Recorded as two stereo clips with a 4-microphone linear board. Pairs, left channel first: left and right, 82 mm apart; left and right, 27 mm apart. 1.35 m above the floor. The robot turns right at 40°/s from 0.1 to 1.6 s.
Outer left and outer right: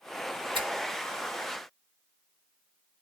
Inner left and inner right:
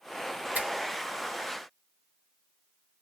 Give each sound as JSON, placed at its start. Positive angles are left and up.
{"t": 0.6, "sound": "a finger snap", "side_deg": -80, "distance_m": 1.5}